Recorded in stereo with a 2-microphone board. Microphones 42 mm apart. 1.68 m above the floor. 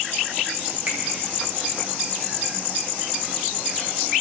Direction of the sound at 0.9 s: 50° right (ahead or behind).